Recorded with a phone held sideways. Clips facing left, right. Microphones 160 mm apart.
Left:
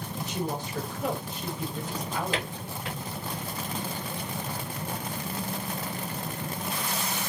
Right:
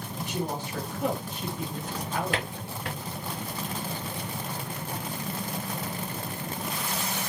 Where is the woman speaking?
65° right (ahead or behind), 2.0 m.